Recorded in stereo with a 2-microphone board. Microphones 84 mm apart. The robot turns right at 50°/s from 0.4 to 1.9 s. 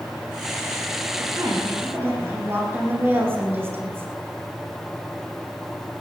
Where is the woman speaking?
65° right, 7.5 m; by 4.1 s 25° right, 7.5 m.